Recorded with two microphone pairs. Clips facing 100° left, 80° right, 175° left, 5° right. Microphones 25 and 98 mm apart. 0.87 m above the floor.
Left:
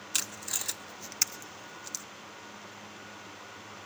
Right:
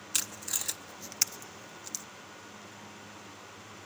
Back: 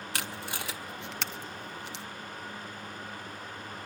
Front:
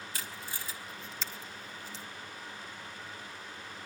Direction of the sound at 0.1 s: 175° right.